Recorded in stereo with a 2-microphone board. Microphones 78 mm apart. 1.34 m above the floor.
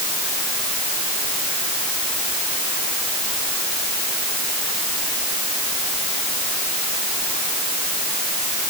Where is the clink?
No clink in this recording.